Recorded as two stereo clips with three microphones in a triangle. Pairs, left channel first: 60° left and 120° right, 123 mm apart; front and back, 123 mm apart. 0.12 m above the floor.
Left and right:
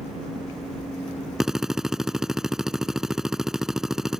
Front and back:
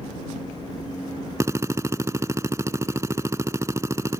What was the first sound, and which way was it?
A drill, 160° left.